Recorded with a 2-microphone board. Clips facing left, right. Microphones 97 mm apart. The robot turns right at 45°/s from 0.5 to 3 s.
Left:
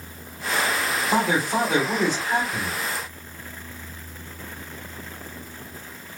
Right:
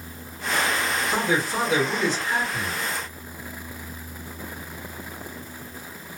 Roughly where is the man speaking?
Left.